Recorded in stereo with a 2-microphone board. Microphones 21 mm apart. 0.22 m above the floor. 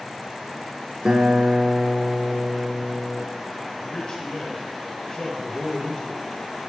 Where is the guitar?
40° right (ahead or behind), 1.0 m.